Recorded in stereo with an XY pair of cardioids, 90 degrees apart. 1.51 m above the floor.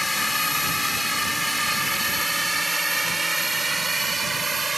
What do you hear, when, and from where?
0.0 s a drone: 15° left; by 4.8 s 30° right